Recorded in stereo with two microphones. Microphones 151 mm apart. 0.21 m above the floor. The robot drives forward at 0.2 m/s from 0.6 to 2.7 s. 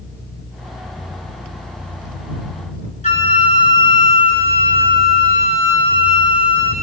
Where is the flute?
55° left (ahead or behind), 0.9 m.